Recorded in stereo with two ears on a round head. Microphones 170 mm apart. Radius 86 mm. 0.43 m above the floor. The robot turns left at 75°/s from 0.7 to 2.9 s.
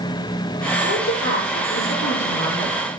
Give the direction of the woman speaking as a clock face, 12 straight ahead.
8 o'clock.